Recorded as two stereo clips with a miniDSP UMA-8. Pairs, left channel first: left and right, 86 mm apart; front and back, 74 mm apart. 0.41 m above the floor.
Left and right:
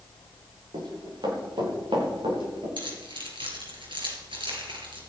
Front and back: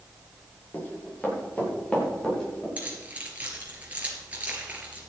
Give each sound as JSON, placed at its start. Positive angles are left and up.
{"t": 0.7, "sound": "running footsteps", "azimuth_deg": -65, "distance_m": 9.5}
{"t": 2.8, "sound": "keys jangling", "azimuth_deg": -110, "distance_m": 4.5}